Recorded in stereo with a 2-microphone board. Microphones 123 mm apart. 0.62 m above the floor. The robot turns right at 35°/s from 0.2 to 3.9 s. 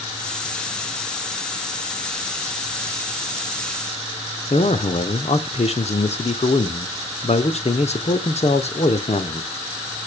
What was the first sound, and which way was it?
A man speaking, 60° left (ahead or behind).